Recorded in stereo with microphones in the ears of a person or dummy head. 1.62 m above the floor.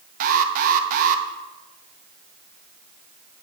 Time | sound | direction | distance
0.2 | an alarm | 45° right (ahead or behind) | 0.8 m